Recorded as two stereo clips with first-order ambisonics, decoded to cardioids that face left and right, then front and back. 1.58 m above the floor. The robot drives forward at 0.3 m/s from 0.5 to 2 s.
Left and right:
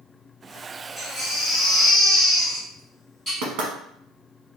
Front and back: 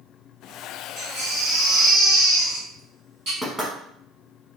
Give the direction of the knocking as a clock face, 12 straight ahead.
3 o'clock.